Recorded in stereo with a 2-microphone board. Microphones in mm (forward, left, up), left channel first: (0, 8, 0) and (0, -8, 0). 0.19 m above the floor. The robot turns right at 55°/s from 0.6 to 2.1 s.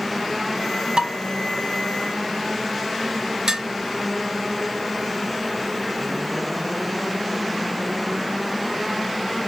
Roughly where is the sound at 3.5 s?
Right.